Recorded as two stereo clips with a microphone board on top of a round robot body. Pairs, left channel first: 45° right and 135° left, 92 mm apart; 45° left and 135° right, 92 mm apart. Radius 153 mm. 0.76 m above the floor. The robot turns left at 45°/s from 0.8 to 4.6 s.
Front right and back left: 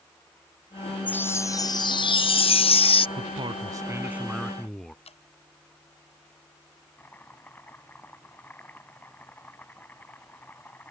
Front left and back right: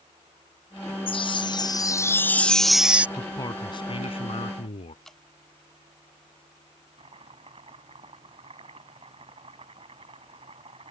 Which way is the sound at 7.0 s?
115° right.